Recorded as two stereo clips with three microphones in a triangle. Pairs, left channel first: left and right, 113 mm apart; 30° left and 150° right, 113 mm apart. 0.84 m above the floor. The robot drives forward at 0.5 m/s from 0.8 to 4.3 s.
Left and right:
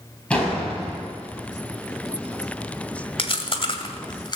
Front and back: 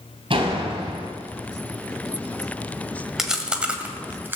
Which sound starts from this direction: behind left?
Chewing, at 3.2 s.